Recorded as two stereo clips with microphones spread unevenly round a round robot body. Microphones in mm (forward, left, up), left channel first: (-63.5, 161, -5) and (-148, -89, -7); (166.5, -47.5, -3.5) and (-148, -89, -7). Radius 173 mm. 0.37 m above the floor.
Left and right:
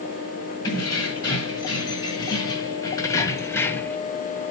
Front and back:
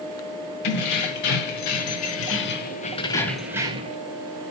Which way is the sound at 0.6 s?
5° right.